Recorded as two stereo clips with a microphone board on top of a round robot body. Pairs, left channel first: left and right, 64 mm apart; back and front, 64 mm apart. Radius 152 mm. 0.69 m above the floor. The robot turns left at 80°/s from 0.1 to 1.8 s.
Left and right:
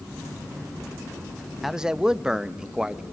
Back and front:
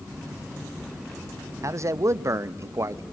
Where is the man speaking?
Straight ahead, 0.8 m; by 3.0 s 15° right, 0.8 m.